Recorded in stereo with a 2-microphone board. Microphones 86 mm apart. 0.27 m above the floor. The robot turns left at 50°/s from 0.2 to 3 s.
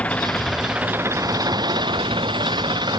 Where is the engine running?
15° left; by 3.0 s 125° right.